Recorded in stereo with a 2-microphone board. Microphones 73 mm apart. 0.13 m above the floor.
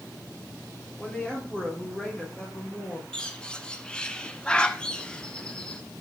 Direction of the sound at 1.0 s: 15° left (ahead or behind).